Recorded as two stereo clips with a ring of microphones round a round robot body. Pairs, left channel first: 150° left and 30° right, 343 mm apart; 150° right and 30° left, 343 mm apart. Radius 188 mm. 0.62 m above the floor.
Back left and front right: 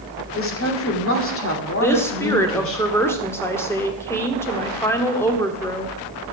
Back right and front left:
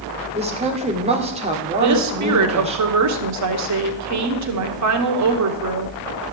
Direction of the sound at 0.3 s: 100° left.